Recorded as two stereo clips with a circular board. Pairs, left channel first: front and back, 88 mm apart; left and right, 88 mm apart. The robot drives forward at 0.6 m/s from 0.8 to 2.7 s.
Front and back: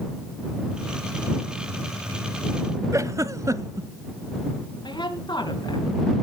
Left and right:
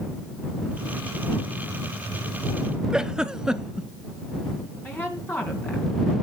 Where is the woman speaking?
25° left, 3 m.